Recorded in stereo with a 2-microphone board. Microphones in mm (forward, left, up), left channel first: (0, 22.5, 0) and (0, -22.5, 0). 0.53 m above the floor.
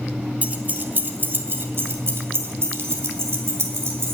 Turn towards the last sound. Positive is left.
turn(degrees=-70)  # may be behind; listen again after turning